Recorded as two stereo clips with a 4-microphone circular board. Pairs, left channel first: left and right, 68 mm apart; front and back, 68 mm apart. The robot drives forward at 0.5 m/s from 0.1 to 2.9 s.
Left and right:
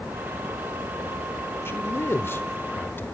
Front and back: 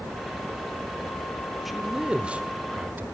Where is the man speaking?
90° left, 1.1 m; by 3.0 s 135° left, 1.3 m.